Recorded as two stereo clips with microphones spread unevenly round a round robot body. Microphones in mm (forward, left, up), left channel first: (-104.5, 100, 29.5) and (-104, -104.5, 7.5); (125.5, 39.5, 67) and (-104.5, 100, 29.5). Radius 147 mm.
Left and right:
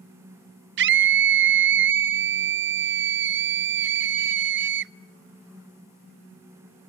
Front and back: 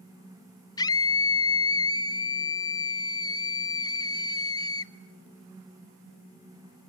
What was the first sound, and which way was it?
A scream, 95° right.